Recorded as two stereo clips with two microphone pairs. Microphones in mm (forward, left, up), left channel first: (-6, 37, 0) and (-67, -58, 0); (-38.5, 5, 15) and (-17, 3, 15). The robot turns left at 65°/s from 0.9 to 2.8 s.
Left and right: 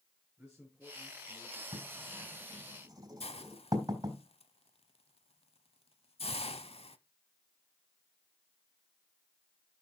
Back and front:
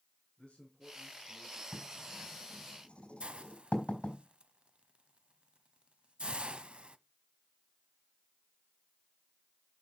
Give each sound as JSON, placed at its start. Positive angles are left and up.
{"t": 0.4, "sound": "a man speaking", "azimuth_deg": 155, "distance_m": 4.5}
{"t": 1.7, "sound": "writing", "azimuth_deg": -105, "distance_m": 3.0}
{"t": 3.2, "sound": "a hiss", "azimuth_deg": 30, "distance_m": 0.6}